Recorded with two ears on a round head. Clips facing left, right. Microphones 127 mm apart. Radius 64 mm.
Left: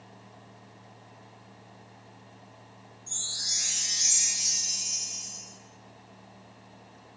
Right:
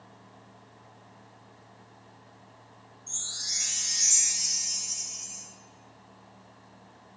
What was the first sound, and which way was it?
A chime, 25° left (ahead or behind).